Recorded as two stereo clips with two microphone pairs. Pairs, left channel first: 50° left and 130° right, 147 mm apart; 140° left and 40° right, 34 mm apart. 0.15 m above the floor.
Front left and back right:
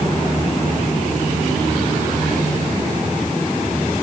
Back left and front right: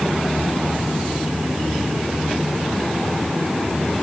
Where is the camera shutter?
I don't hear a camera shutter.